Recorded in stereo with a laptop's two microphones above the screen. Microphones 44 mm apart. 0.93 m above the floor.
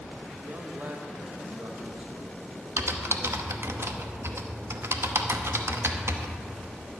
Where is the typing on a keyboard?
75° right (ahead or behind), 0.8 m.